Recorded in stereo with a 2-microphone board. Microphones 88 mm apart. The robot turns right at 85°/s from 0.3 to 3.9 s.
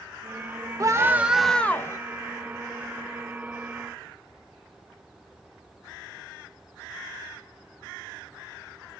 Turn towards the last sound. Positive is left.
turn(degrees=-150)